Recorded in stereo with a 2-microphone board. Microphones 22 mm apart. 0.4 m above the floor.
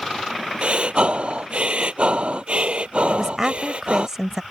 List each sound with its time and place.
0.6 s breathing: 55° right (ahead or behind)
3.1 s a woman speaking: 20° right (ahead or behind)